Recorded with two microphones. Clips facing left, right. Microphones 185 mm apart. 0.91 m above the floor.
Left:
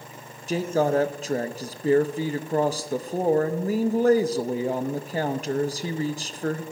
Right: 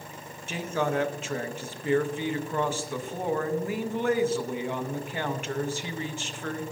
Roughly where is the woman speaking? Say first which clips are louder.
Left 6 dB; left.